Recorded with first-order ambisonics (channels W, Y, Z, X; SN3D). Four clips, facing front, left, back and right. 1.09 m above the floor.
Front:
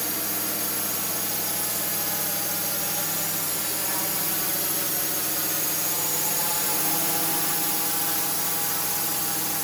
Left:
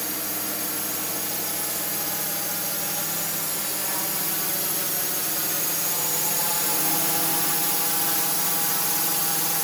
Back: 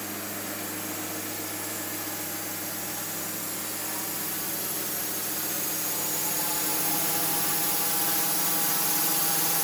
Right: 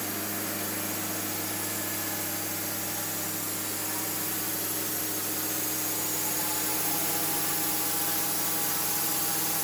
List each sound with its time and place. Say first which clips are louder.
0.0 s a drone: left 2 dB, front 4 dB; 35° left; by 9.6 s 110° left